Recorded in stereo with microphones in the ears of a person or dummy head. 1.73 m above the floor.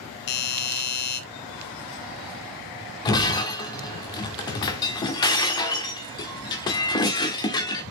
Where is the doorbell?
60° left (ahead or behind), 1.5 m.